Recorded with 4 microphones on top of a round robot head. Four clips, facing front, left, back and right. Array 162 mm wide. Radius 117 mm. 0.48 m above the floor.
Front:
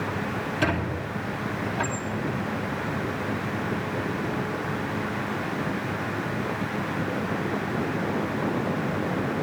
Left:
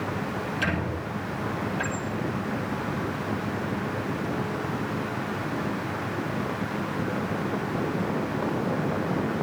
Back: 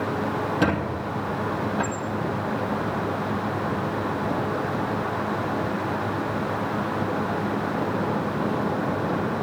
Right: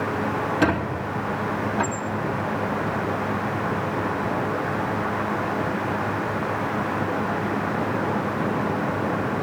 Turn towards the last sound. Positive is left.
turn(degrees=-145)